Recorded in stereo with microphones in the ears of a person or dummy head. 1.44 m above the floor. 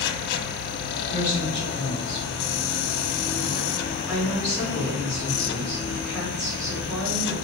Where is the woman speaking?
15° right (ahead or behind), 4.5 m.